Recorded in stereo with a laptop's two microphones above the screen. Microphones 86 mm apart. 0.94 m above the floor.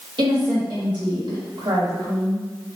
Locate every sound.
0.2 s a woman speaking: 70° right (ahead or behind), 2.0 m